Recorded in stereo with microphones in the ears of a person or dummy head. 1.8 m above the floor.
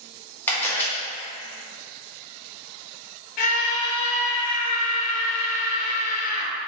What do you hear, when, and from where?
0.5 s a camera shutter: 15° left (ahead or behind), 1.2 m
3.4 s a scream: 45° left (ahead or behind), 0.5 m